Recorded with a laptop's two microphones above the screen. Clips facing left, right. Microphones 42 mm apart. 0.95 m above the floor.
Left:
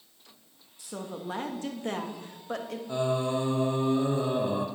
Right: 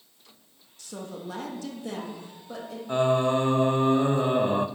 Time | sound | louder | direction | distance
0.8 | a woman speaking | even | 15° left (ahead or behind) | 1.4 m
2.9 | singing | right 6 dB | 45° right (ahead or behind) | 0.6 m